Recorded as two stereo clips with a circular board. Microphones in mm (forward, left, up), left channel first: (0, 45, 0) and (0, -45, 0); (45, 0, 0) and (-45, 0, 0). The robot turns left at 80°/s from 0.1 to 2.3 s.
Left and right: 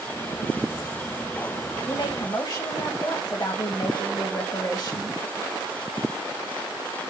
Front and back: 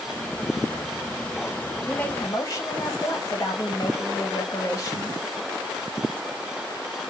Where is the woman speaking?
85° left, 1.0 m; by 5.2 s 50° left, 1.0 m.